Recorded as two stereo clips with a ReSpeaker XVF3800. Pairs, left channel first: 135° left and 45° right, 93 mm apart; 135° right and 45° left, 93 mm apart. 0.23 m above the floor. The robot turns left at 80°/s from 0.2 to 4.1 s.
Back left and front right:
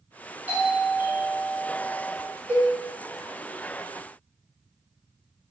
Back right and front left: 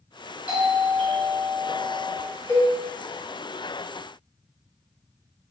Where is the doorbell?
10° right, 1.6 m; by 2.3 s 150° right, 1.6 m.